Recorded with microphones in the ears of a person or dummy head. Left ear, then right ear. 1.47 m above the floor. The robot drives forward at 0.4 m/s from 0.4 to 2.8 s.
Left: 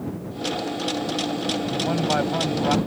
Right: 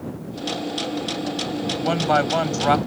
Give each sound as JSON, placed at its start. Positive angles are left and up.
{"t": 1.7, "sound": "a man speaking", "side_deg": -85}